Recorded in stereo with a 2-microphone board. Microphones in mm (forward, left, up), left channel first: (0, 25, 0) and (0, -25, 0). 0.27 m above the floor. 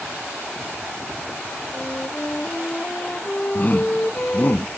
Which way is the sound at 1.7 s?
30° left (ahead or behind).